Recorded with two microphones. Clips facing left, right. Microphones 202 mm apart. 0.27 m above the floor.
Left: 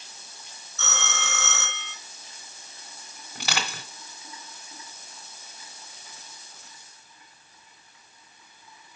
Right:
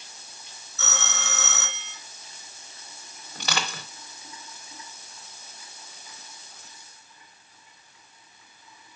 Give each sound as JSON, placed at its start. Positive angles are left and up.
{"t": 0.8, "sound": "a phone ringing", "side_deg": -5, "distance_m": 2.5}
{"t": 3.4, "sound": "crushing", "side_deg": 10, "distance_m": 2.5}